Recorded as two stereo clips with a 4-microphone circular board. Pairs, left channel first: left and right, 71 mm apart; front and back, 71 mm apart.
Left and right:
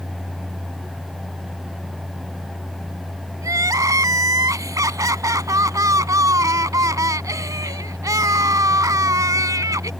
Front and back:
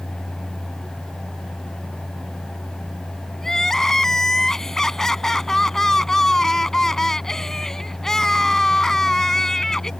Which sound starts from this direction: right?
Crying, at 3.4 s.